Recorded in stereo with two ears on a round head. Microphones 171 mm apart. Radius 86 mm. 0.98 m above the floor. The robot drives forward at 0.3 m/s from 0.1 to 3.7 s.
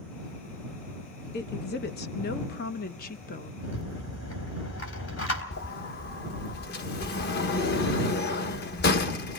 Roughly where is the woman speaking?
Left.